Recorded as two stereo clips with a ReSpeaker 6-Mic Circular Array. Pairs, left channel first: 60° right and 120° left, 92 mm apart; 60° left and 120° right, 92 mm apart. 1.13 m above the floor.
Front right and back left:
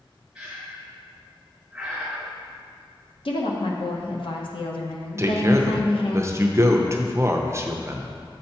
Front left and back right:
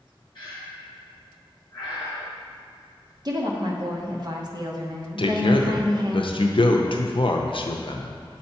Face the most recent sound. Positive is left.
turn(degrees=65)